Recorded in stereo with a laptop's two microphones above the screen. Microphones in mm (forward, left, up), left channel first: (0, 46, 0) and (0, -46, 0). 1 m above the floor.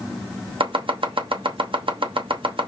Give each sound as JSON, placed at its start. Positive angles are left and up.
{"t": 0.6, "sound": "chopping", "side_deg": -75, "distance_m": 0.8}